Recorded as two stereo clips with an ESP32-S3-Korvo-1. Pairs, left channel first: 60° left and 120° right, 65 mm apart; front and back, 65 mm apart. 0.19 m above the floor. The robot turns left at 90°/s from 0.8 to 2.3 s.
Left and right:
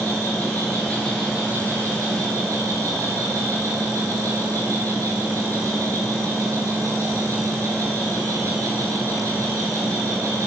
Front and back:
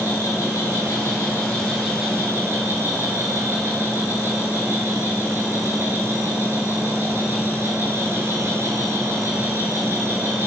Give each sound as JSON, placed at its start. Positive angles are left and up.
{"t": 0.0, "sound": "an insect", "azimuth_deg": 5, "distance_m": 1.0}